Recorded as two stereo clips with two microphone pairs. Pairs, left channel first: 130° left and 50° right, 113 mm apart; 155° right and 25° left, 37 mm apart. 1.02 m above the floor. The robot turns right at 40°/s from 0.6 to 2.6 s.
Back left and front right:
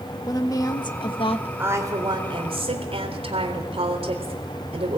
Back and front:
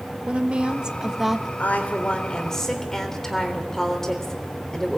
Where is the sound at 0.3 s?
80° left, 1.2 m; by 1.5 s 115° left, 1.2 m.